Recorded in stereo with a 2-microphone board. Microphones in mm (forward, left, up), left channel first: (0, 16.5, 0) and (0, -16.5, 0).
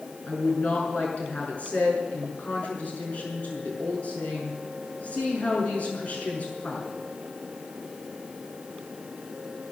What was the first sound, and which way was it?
A woman speaking, 45° left (ahead or behind).